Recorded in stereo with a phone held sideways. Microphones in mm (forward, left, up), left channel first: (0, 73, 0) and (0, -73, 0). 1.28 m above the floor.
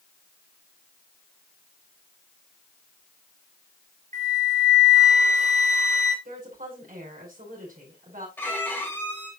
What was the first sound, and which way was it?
A flute, 55° right (ahead or behind).